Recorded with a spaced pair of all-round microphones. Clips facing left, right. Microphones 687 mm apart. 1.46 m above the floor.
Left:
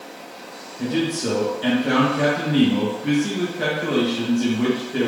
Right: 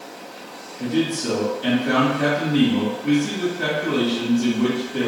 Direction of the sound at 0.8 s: 80° left.